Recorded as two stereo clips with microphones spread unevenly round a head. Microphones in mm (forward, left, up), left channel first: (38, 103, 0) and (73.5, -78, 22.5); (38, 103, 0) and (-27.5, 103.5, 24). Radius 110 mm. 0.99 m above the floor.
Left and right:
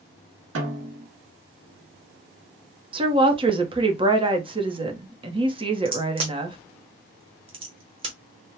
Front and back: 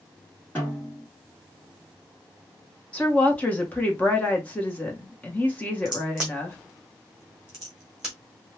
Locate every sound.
0.6 s a snare drum: 75° right, 1.3 m
2.9 s a woman speaking: 20° right, 1.0 m
5.8 s a crack: 125° right, 0.9 m